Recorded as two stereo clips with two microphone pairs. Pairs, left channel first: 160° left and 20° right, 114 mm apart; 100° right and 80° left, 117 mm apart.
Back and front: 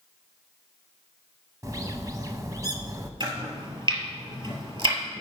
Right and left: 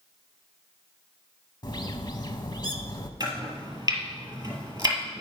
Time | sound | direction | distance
1.6 | a bird | 65° right | 0.8 m
3.2 | chopping | 20° left | 2.5 m